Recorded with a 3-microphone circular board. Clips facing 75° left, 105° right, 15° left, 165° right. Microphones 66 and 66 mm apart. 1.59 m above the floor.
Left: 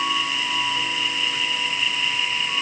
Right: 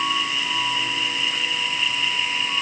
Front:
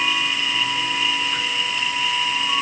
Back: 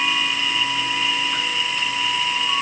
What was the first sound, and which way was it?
Only background noise.